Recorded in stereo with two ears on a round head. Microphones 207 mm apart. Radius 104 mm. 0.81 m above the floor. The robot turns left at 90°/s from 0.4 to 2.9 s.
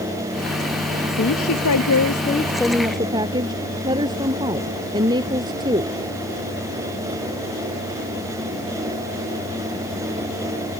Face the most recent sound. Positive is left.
turn(degrees=-20)